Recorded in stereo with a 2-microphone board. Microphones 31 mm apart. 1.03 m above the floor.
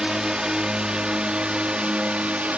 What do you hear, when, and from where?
0.0 s a drone: 20° right (ahead or behind); by 2.6 s 45° right (ahead or behind)